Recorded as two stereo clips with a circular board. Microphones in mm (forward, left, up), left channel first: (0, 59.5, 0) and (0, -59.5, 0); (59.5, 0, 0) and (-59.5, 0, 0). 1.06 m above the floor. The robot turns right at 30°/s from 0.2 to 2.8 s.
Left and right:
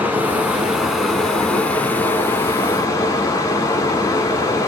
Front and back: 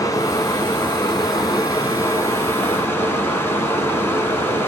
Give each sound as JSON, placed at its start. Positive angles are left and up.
{"t": 0.0, "sound": "running water", "azimuth_deg": -25, "distance_m": 1.1}